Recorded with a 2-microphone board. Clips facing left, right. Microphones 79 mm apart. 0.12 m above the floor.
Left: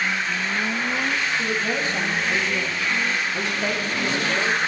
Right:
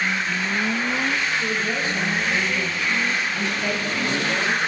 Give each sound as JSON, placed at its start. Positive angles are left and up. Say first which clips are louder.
{"t": 1.4, "sound": "a woman speaking", "louder": "even", "side_deg": 35, "distance_m": 4.0}